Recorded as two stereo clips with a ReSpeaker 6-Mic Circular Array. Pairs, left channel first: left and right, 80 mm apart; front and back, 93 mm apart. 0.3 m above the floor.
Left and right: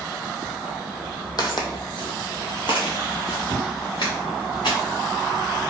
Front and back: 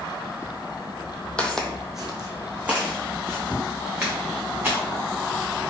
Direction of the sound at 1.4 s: 75° left.